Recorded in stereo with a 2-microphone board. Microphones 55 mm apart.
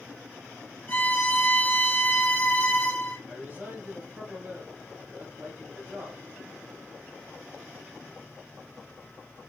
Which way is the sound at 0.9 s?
30° left (ahead or behind).